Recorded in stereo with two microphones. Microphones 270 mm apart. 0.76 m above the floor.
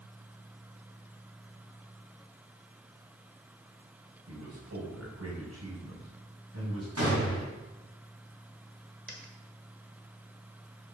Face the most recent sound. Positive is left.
turn(degrees=-45)  # may be behind; listen again after turning